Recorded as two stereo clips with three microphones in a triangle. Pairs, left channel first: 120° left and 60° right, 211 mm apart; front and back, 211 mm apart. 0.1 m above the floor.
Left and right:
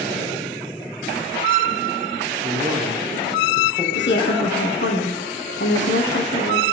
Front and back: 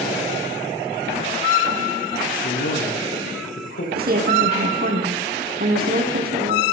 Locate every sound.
2.4 s a man speaking: 15° left, 4.5 m
4.0 s a woman speaking: 140° left, 3.5 m